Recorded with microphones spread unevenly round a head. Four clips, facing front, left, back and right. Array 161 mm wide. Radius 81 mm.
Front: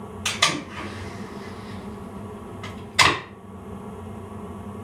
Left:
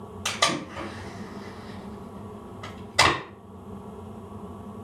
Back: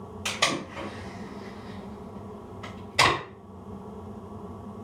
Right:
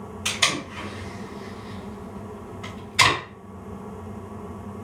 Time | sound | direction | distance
0.2 | tape being pulled | 120° left | 1.7 m